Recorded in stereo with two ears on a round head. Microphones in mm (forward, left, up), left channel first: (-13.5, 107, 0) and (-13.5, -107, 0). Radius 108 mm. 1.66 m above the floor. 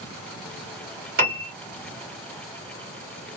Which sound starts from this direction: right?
A piano, at 1.2 s.